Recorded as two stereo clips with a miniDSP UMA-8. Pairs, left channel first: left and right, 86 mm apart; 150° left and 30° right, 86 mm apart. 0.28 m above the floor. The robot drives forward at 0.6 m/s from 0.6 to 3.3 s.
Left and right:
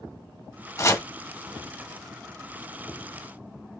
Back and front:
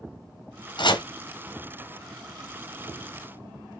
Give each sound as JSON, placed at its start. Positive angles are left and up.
{"t": 0.8, "sound": "chopping", "azimuth_deg": 140, "distance_m": 1.2}